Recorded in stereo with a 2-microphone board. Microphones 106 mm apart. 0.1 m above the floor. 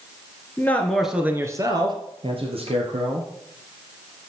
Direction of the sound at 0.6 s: 20° left (ahead or behind).